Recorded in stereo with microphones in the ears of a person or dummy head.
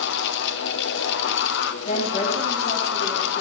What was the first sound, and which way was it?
A fan, 75° left (ahead or behind).